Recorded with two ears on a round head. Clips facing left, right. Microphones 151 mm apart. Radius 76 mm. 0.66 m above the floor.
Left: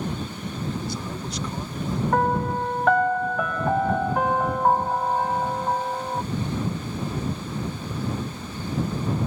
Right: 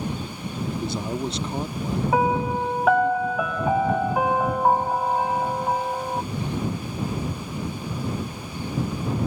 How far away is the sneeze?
No sneeze in this recording.